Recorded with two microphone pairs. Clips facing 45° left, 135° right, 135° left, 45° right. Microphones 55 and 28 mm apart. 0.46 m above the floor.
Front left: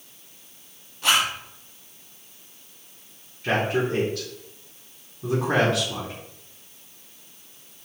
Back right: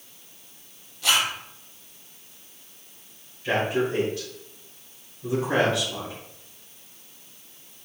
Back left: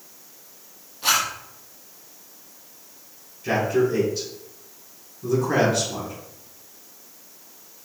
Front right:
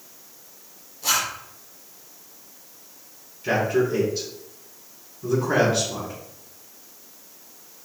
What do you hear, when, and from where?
1.0 s a zipper: 95° left, 3.5 m
3.4 s a man speaking: 40° left, 4 m